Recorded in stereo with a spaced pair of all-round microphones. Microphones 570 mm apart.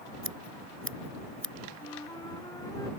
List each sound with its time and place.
0.2 s scissors: 20° right (ahead or behind)
1.8 s a flute: 5° left (ahead or behind)